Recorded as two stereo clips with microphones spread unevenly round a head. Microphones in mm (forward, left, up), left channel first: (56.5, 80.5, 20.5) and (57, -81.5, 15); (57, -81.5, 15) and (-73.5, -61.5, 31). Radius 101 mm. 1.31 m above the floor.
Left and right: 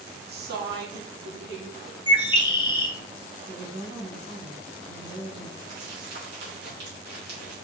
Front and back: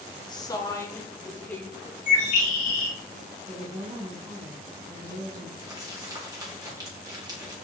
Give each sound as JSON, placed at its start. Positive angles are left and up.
{"t": 0.3, "sound": "a woman speaking", "azimuth_deg": -65, "distance_m": 2.0}
{"t": 2.1, "sound": "a bird", "azimuth_deg": 40, "distance_m": 1.5}
{"t": 3.5, "sound": "a woman speaking", "azimuth_deg": -135, "distance_m": 4.0}
{"t": 5.6, "sound": "crumpling", "azimuth_deg": -125, "distance_m": 3.5}